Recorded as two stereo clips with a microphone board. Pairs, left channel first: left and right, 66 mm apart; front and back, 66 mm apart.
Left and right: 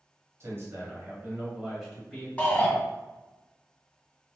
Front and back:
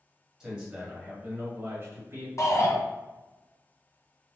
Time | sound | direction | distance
0.4 | a man speaking | 105° right | 1.7 m
2.4 | a shout | 25° left | 1.9 m